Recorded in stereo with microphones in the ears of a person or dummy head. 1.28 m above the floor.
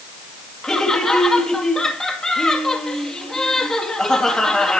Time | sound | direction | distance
0.6 | laughter | centre (ahead or behind) | 2 m